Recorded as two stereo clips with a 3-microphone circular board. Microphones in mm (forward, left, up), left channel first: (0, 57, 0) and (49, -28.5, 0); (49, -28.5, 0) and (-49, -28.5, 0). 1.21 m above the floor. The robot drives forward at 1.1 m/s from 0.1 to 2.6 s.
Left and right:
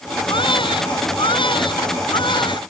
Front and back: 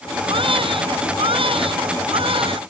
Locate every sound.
0.3 s a baby crying: 155° left